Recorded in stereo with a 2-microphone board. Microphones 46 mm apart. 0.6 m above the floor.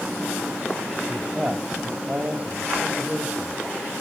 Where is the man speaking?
30° right (ahead or behind), 3.5 m.